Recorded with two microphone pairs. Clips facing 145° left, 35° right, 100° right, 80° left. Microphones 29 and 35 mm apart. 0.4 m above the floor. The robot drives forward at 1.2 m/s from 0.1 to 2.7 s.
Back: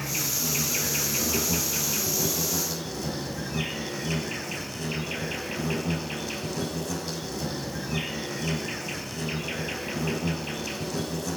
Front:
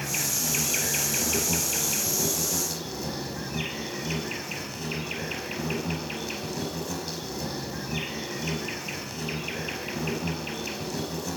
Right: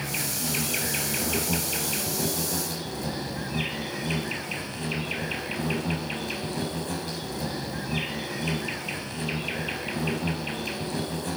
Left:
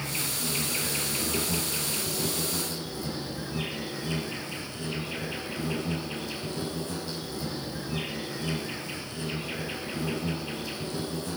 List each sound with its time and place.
0.0 s an insect: 75° right, 4.5 m; by 11.4 s 115° right, 5 m